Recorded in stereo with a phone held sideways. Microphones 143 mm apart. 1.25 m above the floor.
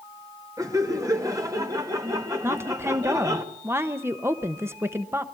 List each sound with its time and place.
0.6 s laughter: 25° right (ahead or behind), 2 m
2.4 s a woman speaking: 15° right (ahead or behind), 1.0 m